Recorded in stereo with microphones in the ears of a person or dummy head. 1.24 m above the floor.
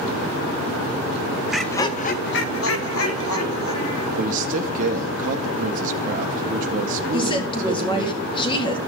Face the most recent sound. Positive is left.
turn(degrees=25)  # may be behind; listen again after turning